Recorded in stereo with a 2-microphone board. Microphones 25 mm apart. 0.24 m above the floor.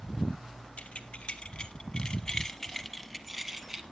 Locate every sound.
0.8 s keys jangling: 65° left (ahead or behind), 1.5 m; by 3.8 s 20° right (ahead or behind), 1.4 m